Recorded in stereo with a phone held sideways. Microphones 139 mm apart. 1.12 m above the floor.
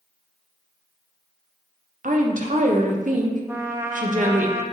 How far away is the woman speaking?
About 0.9 m.